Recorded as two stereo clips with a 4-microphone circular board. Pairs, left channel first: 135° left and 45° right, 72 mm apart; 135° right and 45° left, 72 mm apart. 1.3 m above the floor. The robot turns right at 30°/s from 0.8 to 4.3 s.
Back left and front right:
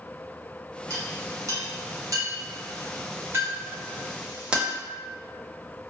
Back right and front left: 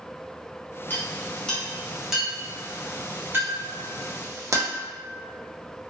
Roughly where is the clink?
Right.